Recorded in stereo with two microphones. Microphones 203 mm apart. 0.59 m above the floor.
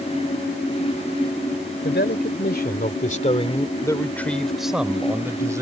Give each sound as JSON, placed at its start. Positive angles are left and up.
{"t": 1.8, "sound": "a man speaking", "side_deg": 65}